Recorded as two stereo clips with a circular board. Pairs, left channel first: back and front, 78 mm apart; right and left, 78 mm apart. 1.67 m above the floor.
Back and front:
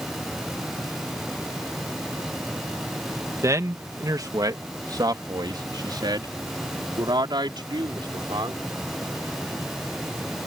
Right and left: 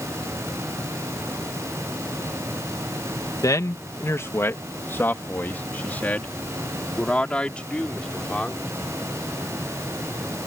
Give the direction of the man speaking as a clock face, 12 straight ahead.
2 o'clock.